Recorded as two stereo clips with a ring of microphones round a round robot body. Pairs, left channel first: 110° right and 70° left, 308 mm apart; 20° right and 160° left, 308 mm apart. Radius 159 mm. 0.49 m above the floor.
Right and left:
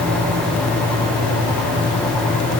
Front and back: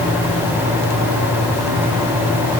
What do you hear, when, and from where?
Only background noise.